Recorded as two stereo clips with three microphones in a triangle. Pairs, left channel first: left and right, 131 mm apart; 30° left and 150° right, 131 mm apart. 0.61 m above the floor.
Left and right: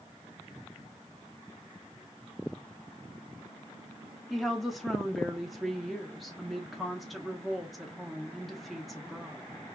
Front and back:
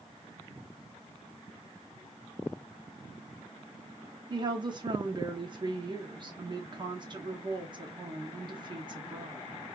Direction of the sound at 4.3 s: Straight behind.